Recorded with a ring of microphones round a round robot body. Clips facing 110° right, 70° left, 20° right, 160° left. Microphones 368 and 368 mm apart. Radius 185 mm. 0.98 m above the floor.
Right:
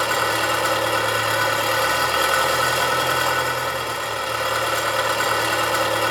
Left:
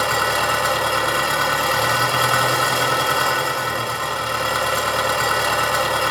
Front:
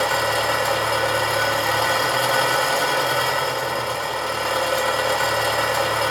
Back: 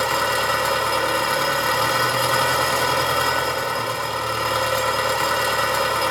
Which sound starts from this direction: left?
An engine running, at 0.0 s.